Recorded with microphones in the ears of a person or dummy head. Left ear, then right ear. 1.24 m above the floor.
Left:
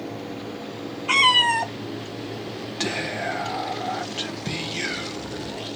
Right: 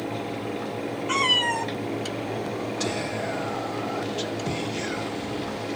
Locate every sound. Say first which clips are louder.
1.1 s a cat meowing: left 5 dB; 25° left (ahead or behind), 0.7 m
2.8 s whispering: left 5 dB; 40° left (ahead or behind), 1.0 m